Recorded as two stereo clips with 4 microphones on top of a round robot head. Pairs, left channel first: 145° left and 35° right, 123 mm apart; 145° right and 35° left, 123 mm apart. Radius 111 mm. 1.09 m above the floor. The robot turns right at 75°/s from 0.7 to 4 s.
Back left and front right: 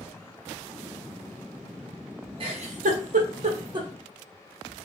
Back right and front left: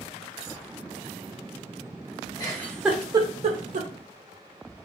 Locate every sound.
2.4 s a giggle: 85° right, 1.1 m; by 3.9 s 25° left, 1.1 m